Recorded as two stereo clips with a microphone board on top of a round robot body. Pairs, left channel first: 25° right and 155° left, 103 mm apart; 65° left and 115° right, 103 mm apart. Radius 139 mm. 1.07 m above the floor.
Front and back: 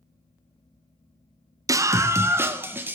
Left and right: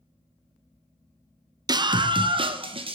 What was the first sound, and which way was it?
A scream, 150° right.